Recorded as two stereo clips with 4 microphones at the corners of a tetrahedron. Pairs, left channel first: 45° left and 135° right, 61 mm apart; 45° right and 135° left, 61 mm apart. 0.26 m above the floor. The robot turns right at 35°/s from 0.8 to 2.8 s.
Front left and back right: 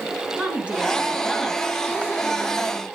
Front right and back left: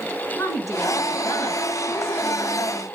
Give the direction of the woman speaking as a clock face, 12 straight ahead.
2 o'clock.